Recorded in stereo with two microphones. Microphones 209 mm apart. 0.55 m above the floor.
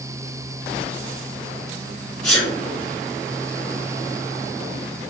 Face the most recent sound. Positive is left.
turn(degrees=30)  # may be behind; listen again after turning